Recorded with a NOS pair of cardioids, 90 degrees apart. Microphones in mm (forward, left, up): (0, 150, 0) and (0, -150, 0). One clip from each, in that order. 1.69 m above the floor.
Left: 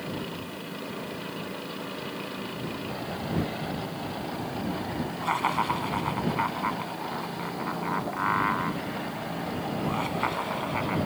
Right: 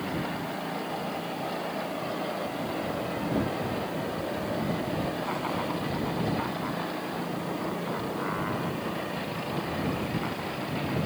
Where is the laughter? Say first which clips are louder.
Left 5 dB; 65° left; by 11.0 s 75° left.